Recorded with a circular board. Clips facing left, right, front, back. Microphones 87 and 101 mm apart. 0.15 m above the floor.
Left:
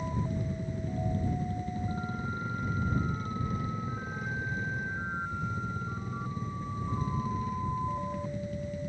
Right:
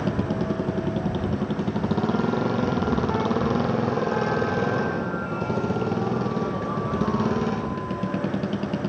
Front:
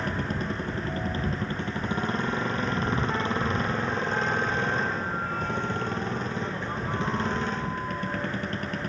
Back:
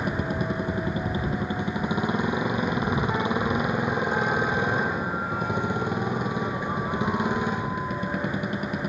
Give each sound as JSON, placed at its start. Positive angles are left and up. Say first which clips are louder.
{"t": 0.0, "sound": "a motorcycle", "louder": "right 9 dB, back 3 dB", "azimuth_deg": -105}